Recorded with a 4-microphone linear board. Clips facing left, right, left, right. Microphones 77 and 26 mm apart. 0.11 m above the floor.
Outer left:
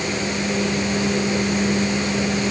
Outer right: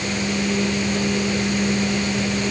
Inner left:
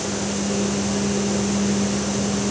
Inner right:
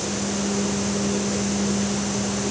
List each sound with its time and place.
Only background noise.